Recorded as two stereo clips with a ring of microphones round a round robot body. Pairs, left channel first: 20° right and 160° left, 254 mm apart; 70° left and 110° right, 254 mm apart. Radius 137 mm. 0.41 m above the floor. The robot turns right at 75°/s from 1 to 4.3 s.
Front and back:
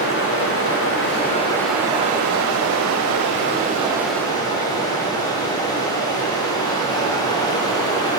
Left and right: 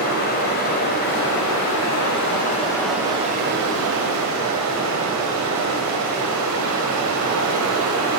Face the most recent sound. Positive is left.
turn(degrees=-95)